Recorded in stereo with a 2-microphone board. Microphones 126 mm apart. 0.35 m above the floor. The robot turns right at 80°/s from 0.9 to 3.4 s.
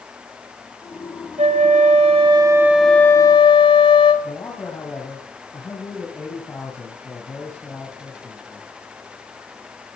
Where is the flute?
120° right, 1.1 m; by 4.1 s 45° left, 1.1 m.